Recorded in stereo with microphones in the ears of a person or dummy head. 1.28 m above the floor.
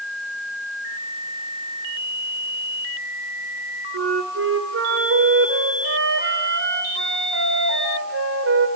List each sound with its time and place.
3.9 s a flute: 75° right (ahead or behind), 2 m